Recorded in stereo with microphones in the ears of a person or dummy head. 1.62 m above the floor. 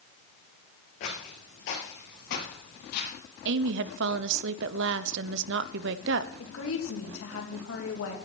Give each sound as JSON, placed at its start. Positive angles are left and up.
{"t": 1.0, "sound": "footsteps", "side_deg": 35, "distance_m": 2.5}
{"t": 3.5, "sound": "a woman speaking", "side_deg": -65, "distance_m": 0.7}
{"t": 6.4, "sound": "a woman speaking", "side_deg": 80, "distance_m": 2.5}